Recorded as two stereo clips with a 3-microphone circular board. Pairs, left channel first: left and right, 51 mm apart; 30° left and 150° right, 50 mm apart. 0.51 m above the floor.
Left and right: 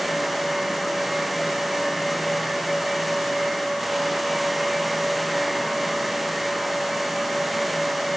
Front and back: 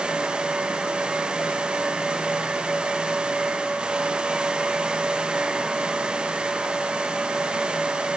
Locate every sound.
Only background noise.